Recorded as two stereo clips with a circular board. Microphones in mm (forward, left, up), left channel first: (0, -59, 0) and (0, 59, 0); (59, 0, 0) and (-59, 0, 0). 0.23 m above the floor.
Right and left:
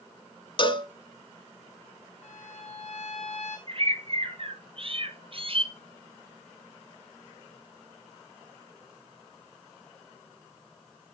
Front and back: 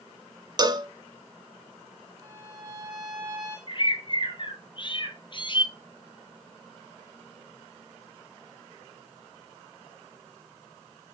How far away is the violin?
About 7.5 m.